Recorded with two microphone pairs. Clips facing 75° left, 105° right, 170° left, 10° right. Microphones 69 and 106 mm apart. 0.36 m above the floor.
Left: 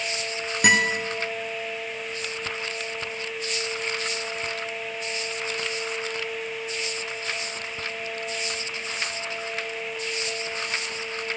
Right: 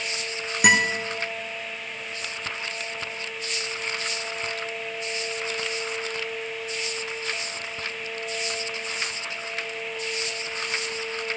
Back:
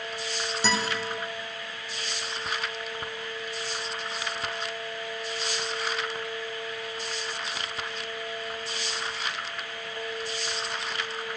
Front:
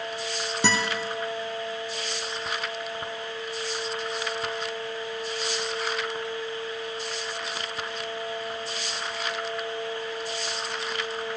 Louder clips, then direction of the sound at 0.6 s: Right 1 dB, front 2 dB; 20° right.